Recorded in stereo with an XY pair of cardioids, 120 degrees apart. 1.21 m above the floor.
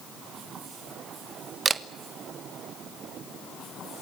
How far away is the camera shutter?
About 1.0 m.